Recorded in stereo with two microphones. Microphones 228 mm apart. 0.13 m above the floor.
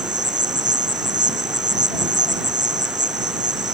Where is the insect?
50° right (ahead or behind).